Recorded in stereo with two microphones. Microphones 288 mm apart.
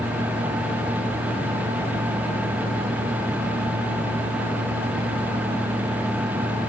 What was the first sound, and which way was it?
Only background noise.